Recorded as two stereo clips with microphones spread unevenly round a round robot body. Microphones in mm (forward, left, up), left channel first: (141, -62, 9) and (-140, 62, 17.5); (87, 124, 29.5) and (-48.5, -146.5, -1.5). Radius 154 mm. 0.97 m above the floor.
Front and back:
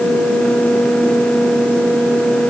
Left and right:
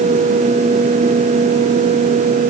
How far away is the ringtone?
No ringtone in this recording.